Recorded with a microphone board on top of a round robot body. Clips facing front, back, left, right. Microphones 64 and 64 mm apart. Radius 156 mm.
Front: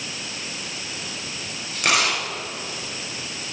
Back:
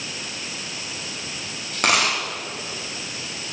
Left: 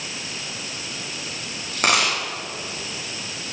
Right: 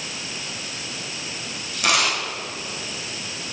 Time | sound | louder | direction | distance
1.7 | a dropped coin | back 1 dB, left 1 dB | 135° left | 6.5 m